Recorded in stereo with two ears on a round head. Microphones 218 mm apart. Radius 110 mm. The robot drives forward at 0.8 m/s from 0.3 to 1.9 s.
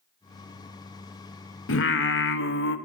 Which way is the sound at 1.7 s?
55° left (ahead or behind).